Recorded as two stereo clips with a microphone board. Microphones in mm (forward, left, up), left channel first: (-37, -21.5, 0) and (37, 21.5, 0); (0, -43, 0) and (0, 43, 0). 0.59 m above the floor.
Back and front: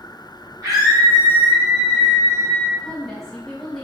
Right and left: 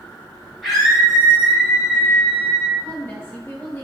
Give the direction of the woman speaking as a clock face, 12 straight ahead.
2 o'clock.